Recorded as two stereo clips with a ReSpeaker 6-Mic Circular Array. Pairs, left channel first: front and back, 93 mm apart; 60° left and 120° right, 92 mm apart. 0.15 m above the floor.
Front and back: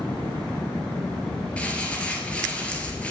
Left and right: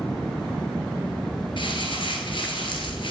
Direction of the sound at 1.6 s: 75° left.